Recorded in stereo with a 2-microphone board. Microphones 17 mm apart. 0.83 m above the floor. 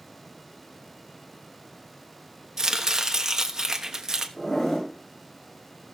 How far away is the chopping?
About 1.1 m.